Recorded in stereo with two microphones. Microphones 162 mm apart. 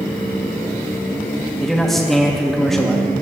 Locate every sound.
1.6 s a man speaking: centre (ahead or behind), 1.2 m